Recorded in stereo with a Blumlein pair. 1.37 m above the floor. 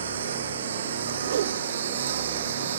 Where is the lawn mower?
65° right; by 2.8 s 60° right.